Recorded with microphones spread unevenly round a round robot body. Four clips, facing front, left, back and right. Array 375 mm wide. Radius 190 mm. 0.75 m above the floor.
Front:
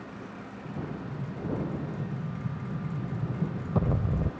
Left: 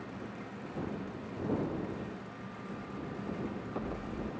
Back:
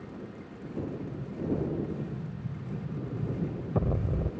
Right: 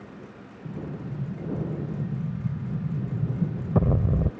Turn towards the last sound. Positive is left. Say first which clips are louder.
# right 4 dB, back 2 dB
turn(degrees=-60)